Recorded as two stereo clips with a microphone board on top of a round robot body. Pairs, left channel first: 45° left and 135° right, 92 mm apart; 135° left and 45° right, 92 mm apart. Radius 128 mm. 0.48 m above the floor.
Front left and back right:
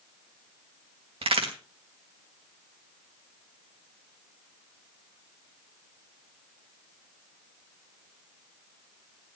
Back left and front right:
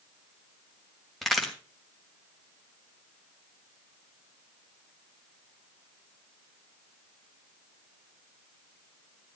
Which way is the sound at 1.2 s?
135° right.